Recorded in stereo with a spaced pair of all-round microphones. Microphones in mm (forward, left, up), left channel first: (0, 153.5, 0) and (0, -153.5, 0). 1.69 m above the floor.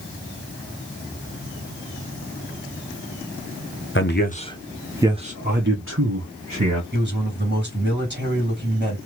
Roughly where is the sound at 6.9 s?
Right.